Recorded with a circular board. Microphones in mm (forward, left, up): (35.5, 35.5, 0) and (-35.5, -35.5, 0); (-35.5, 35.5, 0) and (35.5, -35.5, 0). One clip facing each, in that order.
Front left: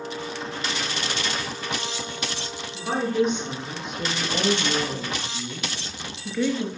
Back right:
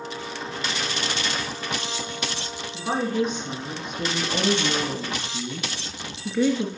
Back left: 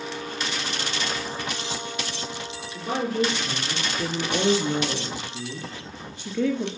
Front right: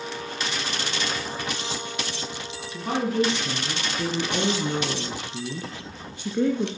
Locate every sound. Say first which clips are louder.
2.7 s a woman speaking: front left 1 dB, front right 1 dB; 55° right, 4 m; by 6.7 s 70° right, 2 m